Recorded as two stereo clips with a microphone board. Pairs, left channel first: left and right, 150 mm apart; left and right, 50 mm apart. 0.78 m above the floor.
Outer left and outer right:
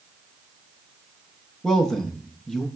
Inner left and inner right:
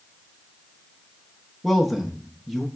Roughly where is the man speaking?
Centre.